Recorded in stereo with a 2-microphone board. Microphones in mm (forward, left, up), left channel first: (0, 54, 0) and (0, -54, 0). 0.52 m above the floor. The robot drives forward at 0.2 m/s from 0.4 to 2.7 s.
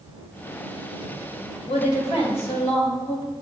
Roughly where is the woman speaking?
Left.